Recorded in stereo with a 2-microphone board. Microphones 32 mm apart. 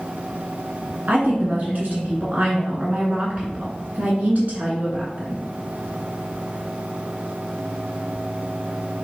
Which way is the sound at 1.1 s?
55° right (ahead or behind).